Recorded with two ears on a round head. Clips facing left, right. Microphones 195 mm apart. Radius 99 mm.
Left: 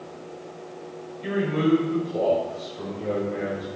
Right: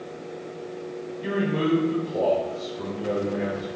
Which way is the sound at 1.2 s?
5° right (ahead or behind).